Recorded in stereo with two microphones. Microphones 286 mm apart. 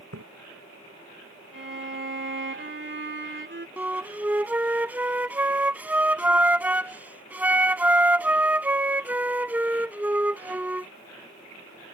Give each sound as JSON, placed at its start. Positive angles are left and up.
{"t": 0.1, "sound": "a splash", "side_deg": -65}
{"t": 1.5, "sound": "a violin", "side_deg": -45}
{"t": 3.8, "sound": "a flute", "side_deg": -5}